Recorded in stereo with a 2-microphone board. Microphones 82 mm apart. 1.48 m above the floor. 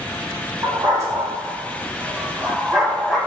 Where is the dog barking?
40° right (ahead or behind), 3 m; by 3.2 s centre (ahead or behind), 2.5 m.